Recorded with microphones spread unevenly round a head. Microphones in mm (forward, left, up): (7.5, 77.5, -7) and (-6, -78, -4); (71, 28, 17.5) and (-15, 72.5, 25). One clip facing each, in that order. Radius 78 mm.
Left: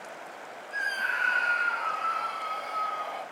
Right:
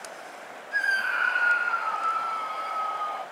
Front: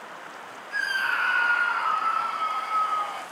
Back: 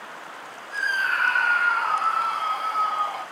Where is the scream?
20° right, 0.9 m; by 3.2 s 75° left, 2 m.